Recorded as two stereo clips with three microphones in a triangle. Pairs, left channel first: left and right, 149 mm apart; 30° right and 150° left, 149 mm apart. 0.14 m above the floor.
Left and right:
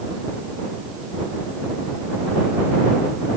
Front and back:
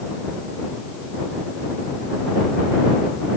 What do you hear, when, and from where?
Only background noise.